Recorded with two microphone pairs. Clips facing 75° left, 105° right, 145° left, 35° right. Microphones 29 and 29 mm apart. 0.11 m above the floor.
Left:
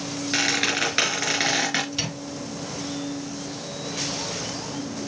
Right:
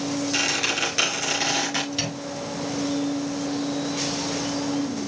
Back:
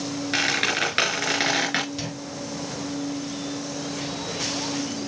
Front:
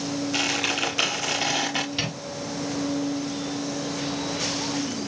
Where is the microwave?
25° right, 1.8 m.